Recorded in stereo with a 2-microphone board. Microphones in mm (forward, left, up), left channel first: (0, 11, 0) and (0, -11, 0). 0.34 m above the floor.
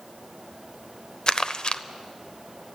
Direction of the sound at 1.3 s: 40° left (ahead or behind).